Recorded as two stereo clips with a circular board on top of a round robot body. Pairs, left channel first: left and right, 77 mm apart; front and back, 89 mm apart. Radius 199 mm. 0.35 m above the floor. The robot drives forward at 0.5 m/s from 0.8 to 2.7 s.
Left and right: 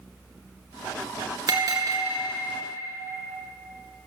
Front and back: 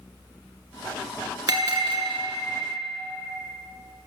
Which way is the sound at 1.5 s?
135° right.